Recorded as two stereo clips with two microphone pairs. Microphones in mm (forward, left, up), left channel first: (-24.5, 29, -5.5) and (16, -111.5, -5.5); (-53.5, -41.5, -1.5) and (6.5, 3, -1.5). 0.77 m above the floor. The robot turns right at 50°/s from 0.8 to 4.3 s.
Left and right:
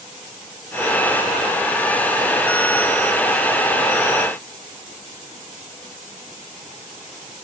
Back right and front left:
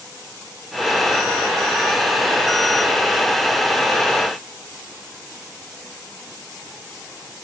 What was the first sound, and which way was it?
Only background noise.